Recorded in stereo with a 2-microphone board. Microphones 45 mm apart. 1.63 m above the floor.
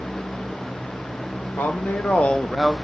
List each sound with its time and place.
1.6 s a woman speaking: 50° left (ahead or behind), 1.1 m; by 2.7 s 5° left (ahead or behind), 0.8 m